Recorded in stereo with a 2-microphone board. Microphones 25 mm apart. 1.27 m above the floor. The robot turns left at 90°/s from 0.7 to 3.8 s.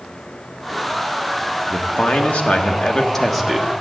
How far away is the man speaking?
About 1.1 m.